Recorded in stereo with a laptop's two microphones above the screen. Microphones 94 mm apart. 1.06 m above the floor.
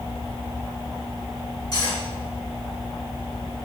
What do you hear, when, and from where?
1.7 s cutlery clinking: 45° left (ahead or behind), 1.8 m